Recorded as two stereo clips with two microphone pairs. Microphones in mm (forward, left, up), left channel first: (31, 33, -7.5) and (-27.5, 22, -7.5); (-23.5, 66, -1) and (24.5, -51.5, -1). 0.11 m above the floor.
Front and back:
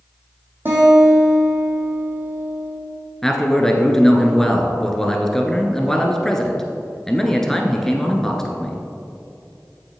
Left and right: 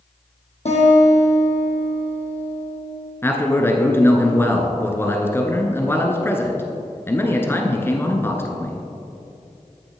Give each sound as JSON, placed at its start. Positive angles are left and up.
{"t": 0.7, "sound": "a guitar", "azimuth_deg": 140, "distance_m": 3.0}
{"t": 3.2, "sound": "a man speaking", "azimuth_deg": 80, "distance_m": 1.1}